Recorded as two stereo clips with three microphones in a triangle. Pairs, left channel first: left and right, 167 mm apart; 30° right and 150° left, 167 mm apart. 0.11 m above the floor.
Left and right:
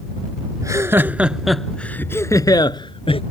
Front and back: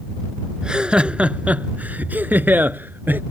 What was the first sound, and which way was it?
Laughter, 130° right.